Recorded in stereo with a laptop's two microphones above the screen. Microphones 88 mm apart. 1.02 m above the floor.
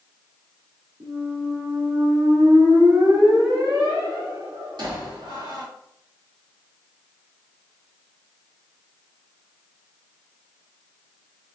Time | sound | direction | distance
1.0 | a squeak | 55° right (ahead or behind) | 1.2 m